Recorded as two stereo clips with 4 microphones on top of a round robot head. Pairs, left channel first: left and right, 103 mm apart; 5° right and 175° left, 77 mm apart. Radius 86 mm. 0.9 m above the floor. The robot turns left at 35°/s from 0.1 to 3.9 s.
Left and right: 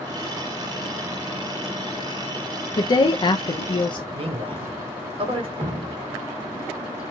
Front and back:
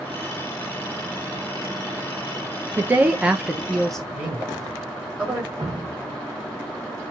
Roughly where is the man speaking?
Right.